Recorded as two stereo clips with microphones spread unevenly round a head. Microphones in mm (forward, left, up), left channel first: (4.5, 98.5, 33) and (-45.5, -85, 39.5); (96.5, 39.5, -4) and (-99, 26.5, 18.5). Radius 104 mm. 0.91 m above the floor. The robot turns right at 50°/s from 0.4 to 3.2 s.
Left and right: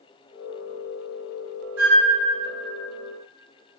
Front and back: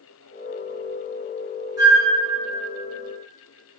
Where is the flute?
110° right, 0.7 m; by 2.1 s 90° right, 0.7 m.